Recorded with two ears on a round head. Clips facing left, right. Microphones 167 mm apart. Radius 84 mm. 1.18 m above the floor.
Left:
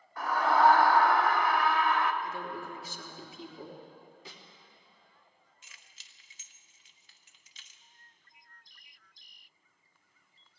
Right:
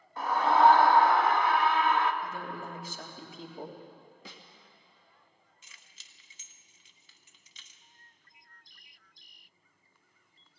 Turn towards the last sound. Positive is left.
turn(degrees=-80)